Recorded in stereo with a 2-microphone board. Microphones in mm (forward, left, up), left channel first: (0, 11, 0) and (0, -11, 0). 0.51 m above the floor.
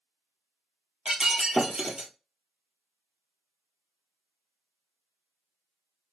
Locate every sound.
1.1 s breaking glass: 55° right (ahead or behind), 0.9 m